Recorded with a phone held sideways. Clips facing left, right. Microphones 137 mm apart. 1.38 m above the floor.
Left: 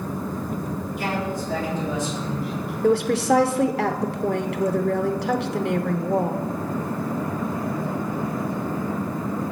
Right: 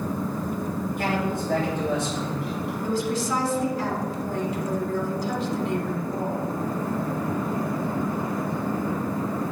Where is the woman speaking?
75° left (ahead or behind), 0.7 m.